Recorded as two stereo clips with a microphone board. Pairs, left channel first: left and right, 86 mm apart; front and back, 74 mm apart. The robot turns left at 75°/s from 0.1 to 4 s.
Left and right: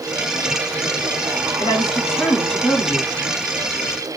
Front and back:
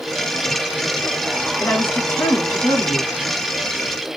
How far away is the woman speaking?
About 2.5 m.